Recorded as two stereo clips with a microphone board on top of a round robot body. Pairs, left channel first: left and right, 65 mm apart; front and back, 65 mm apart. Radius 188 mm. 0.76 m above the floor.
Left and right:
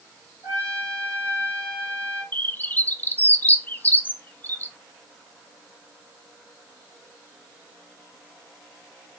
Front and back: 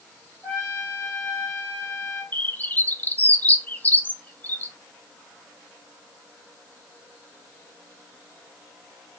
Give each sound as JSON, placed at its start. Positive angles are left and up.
{"t": 0.4, "sound": "a trumpet", "azimuth_deg": 60, "distance_m": 0.5}
{"t": 2.3, "sound": "a bird", "azimuth_deg": 45, "distance_m": 0.6}